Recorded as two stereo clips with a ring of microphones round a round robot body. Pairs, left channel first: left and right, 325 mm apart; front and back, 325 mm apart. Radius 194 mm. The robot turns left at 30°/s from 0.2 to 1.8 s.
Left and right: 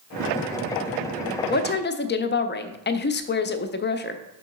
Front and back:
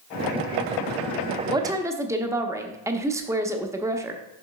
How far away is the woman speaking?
About 0.7 m.